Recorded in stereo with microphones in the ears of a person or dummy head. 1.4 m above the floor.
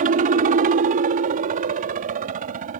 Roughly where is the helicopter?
Right.